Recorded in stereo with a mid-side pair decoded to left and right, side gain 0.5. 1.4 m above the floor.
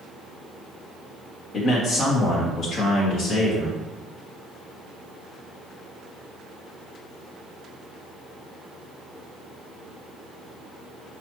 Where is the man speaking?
50° left, 1.2 m; by 3.8 s 75° left, 2 m.